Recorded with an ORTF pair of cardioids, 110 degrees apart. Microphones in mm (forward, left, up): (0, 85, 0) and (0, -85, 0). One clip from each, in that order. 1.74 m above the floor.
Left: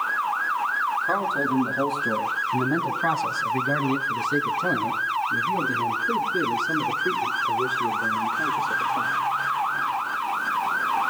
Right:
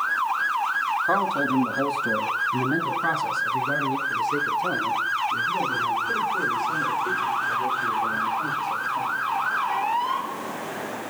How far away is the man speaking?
About 2.5 m.